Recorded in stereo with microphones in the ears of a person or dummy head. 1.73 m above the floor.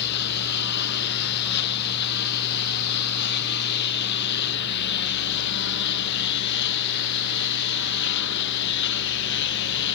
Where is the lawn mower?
55° left (ahead or behind); by 10.0 s 65° left (ahead or behind).